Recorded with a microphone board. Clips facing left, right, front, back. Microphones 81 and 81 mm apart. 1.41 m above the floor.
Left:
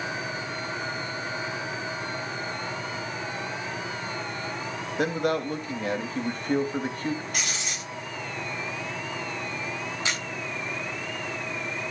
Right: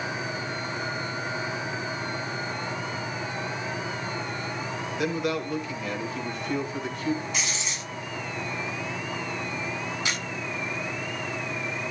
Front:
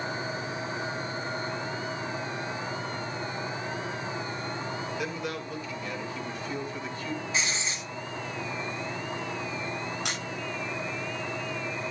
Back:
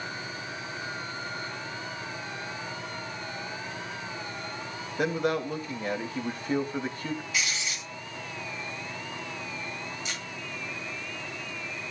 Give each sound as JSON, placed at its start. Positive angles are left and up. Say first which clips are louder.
{"t": 5.0, "sound": "a man speaking", "louder": "left 3 dB, back 6 dB", "azimuth_deg": 135, "distance_m": 2.5}
{"t": 7.3, "sound": "writing", "louder": "right 1 dB, front 1 dB", "azimuth_deg": 60, "distance_m": 3.5}
{"t": 10.1, "sound": "a camera shutter", "louder": "left 2 dB, front 4 dB", "azimuth_deg": 25, "distance_m": 9.5}